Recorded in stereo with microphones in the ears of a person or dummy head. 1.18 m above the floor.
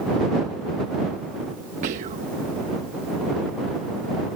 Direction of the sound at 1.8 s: 40° right (ahead or behind).